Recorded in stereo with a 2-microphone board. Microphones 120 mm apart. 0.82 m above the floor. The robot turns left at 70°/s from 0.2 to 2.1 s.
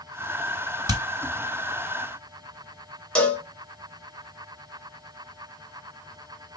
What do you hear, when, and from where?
0.9 s hammering: 35° right (ahead or behind), 2 m; by 1.0 s 45° right (ahead or behind), 2 m
3.1 s a cowbell: 10° left (ahead or behind), 0.9 m